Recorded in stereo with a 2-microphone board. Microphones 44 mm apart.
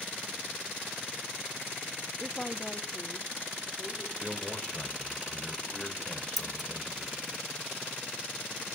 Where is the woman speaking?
5° left (ahead or behind), 1.0 m; by 4.1 s 20° left (ahead or behind), 3.5 m.